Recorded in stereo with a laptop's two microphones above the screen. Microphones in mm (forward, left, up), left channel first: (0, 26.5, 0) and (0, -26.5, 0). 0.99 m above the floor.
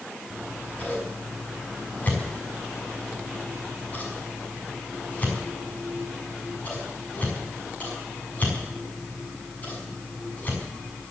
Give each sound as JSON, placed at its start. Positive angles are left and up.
{"t": 0.3, "sound": "scissors", "side_deg": 30, "distance_m": 6.5}